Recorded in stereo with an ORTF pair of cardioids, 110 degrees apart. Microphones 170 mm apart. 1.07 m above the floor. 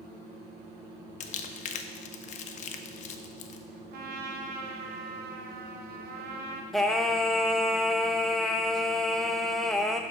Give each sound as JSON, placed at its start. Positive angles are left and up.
{"t": 1.2, "sound": "crumpling", "azimuth_deg": 50, "distance_m": 0.5}
{"t": 3.9, "sound": "a trumpet", "azimuth_deg": -70, "distance_m": 0.8}
{"t": 6.7, "sound": "singing", "azimuth_deg": 0, "distance_m": 0.5}